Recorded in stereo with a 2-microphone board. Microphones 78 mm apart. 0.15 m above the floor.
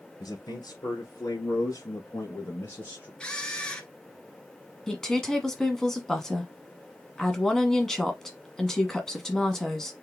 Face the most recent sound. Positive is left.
turn(degrees=5)  # may be behind; listen again after turning